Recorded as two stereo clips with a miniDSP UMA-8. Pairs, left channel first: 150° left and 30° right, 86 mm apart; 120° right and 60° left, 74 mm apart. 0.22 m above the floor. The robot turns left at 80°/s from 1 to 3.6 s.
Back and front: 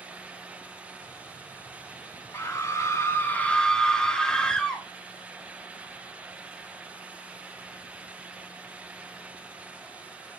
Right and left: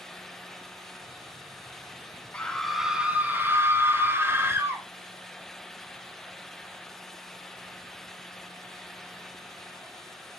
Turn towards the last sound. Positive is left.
turn(degrees=75)